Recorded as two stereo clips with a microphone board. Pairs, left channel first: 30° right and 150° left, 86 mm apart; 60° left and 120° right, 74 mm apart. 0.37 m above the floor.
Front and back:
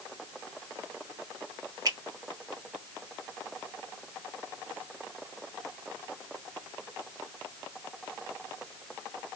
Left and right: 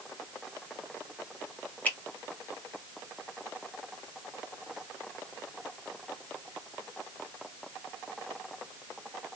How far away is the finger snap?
About 1.7 m.